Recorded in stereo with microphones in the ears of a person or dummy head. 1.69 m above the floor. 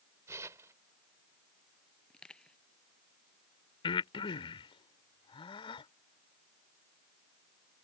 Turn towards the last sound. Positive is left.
turn(degrees=20)  # may be behind; listen again after turning